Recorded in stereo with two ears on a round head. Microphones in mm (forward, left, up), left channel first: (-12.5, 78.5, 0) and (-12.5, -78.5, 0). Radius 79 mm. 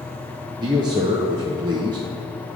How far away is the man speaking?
About 0.9 m.